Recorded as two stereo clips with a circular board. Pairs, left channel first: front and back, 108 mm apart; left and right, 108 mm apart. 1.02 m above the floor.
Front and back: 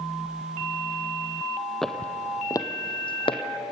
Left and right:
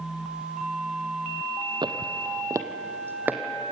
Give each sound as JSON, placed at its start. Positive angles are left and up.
{"t": 1.8, "sound": "footsteps", "azimuth_deg": -90, "distance_m": 1.3}